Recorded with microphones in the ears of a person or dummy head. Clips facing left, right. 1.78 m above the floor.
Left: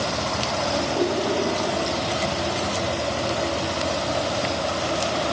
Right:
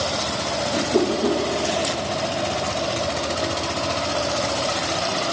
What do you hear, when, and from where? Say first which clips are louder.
0.7 s a whoosh: right 4 dB; 70° right (ahead or behind), 1.9 m